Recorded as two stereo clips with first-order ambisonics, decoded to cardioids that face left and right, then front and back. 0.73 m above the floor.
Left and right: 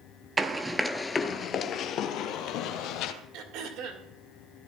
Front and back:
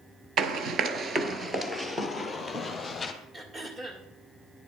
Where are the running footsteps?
155° right, 0.8 m; by 3.1 s 75° left, 1.5 m.